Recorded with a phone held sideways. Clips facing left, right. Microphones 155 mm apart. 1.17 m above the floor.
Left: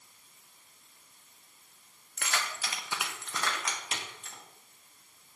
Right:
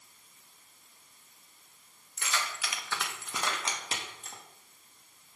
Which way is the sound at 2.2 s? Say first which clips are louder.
Even; 65° left (ahead or behind).